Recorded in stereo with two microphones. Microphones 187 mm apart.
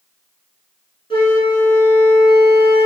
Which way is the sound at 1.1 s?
30° left (ahead or behind).